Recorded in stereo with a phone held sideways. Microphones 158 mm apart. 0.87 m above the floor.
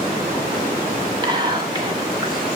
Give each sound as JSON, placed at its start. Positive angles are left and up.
{"t": 1.2, "sound": "whispering", "side_deg": -30, "distance_m": 2.5}